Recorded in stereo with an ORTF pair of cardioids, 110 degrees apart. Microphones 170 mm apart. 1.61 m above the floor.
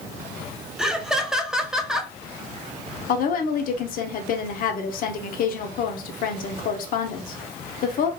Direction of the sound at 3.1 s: 60° left.